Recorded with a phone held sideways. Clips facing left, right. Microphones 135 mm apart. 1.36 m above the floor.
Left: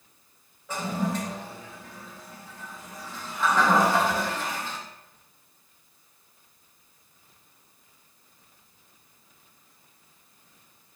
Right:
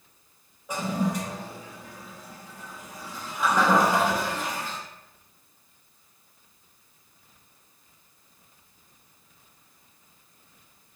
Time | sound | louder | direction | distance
0.7 | a toilet flushing | right 1 dB | 15° right (ahead or behind) | 0.5 m